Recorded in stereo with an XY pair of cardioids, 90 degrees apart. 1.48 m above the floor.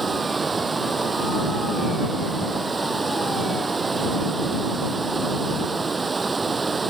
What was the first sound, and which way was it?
Running water, 35° right.